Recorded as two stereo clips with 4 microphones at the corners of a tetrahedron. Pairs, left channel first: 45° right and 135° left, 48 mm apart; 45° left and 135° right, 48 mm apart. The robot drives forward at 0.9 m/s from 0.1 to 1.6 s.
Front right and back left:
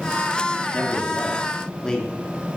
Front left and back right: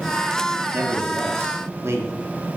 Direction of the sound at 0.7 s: 105° right.